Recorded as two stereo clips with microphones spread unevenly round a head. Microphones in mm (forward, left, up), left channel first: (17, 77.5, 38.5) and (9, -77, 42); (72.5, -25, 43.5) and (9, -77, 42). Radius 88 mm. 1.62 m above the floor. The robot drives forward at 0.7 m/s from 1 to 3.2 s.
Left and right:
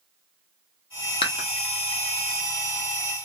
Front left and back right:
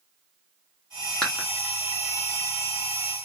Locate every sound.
1.2 s dishes clattering: 115° left, 0.7 m; by 1.5 s 135° left, 0.7 m